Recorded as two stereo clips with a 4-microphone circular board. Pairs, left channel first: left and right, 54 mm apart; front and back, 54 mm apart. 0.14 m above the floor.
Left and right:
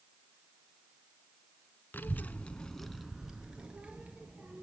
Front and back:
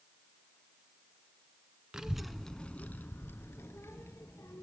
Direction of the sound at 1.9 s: 105° left.